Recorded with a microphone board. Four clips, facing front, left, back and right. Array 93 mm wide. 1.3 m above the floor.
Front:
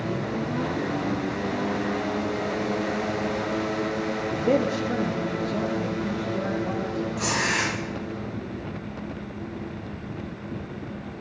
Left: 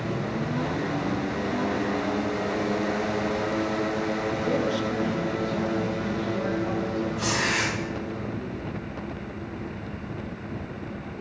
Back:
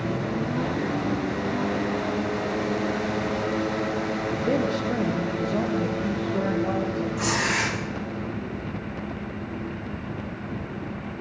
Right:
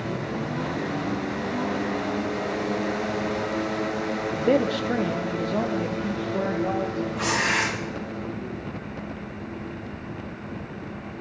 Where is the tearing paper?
120° right, 2.5 m.